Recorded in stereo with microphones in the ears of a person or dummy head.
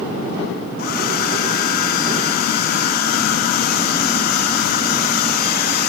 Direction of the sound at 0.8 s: 50° left (ahead or behind).